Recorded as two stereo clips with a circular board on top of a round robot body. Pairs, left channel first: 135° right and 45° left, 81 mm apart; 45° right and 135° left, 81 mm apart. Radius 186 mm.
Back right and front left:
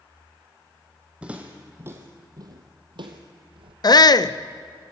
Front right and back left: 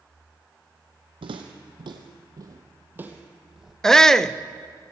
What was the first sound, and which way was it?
Footsteps, 125° left.